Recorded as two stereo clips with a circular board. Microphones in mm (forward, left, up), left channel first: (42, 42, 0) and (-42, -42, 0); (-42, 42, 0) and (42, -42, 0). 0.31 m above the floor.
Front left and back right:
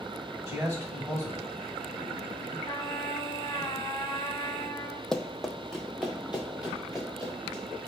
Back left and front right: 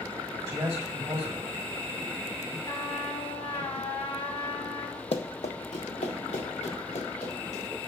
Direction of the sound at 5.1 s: 130° left.